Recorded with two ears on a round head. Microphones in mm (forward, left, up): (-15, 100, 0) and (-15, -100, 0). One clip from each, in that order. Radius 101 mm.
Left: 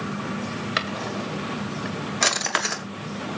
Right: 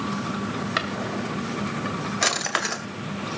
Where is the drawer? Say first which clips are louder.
Left 1 dB; 10° left (ahead or behind), 1.8 m.